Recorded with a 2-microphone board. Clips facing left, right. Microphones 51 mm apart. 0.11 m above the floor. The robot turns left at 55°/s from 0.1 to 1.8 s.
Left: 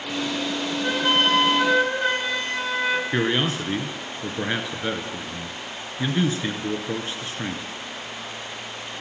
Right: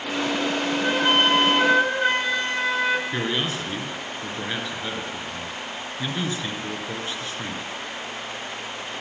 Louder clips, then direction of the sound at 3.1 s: Left 3 dB; 25° left (ahead or behind).